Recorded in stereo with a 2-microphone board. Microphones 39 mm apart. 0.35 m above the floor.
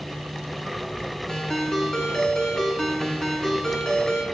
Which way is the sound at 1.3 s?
15° left (ahead or behind).